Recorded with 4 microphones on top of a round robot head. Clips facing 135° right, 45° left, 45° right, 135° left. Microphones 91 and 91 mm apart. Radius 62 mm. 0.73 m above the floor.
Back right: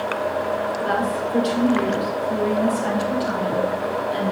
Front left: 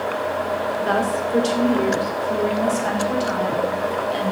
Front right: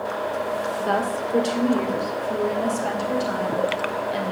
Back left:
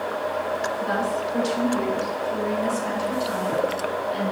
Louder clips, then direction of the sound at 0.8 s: Front left 1 dB, front right 1 dB; 5° right.